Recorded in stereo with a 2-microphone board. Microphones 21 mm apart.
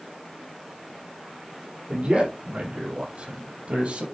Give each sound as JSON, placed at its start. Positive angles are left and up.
{"t": 1.9, "sound": "a man speaking", "side_deg": -65, "distance_m": 5.5}